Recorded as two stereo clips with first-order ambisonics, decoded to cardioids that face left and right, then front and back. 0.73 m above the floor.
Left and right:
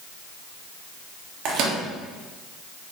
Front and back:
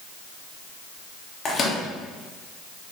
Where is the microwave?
65° right, 0.9 m.